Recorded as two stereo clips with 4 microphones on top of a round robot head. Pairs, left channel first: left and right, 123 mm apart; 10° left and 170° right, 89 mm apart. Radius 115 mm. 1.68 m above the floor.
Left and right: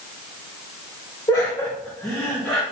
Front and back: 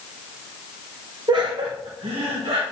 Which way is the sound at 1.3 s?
155° left.